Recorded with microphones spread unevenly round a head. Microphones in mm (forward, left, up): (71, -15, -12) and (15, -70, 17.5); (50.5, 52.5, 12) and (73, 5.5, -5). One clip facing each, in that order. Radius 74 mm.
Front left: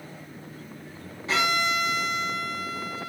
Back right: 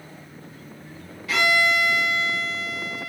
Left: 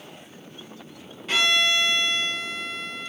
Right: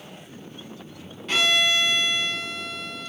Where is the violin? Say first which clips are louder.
Back right 4 dB, even; 130° left, 0.5 m.